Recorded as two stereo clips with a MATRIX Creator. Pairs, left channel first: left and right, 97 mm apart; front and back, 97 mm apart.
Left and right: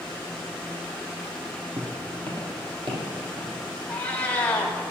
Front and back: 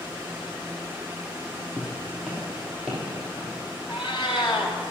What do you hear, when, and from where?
1.8 s footsteps: 85° right, 2 m; by 3.6 s 115° right, 2.5 m
3.9 s a cat meowing: 15° left, 1.5 m